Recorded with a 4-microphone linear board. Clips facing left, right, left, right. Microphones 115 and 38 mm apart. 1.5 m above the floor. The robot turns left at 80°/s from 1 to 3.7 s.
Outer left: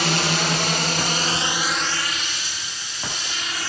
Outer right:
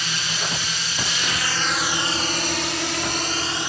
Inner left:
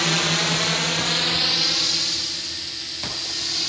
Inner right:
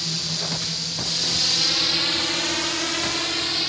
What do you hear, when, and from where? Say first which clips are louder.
0.0 s a drone: outer left 8 dB, inner left 8 dB; 70° left (ahead or behind); by 3.7 s 15° right (ahead or behind)